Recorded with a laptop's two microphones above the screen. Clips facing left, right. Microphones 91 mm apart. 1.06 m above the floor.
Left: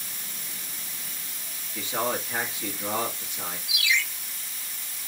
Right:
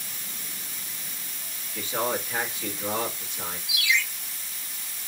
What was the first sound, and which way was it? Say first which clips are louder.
A man speaking: even; 15° left (ahead or behind).